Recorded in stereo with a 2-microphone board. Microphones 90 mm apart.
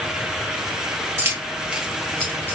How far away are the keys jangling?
About 0.8 m.